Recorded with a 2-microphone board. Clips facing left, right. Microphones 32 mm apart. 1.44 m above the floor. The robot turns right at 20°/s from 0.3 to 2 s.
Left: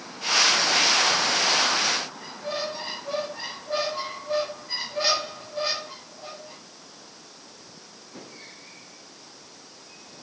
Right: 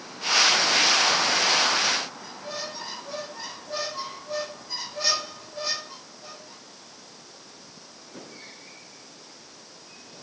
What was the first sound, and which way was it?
A squeak, 30° left (ahead or behind).